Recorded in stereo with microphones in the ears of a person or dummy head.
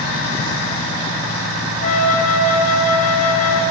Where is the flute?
45° left (ahead or behind), 0.6 m.